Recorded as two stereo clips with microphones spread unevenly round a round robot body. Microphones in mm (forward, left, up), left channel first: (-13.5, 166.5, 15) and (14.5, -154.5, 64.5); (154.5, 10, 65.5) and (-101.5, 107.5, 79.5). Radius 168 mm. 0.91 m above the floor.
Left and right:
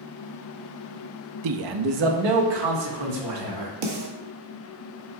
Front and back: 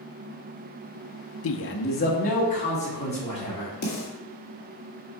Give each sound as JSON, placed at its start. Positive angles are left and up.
{"t": 1.4, "sound": "a man speaking", "azimuth_deg": -55, "distance_m": 0.6}
{"t": 3.8, "sound": "a snare drum", "azimuth_deg": -75, "distance_m": 1.8}